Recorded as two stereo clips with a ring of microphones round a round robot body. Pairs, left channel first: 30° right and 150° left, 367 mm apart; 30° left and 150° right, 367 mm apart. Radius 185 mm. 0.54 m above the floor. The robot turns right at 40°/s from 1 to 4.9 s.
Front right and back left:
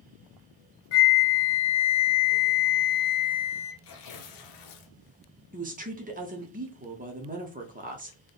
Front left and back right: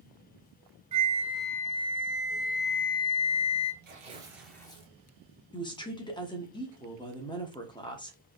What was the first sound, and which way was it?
A flute, 75° right.